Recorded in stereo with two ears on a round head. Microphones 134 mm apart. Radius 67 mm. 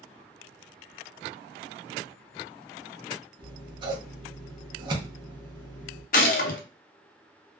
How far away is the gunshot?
About 0.6 m.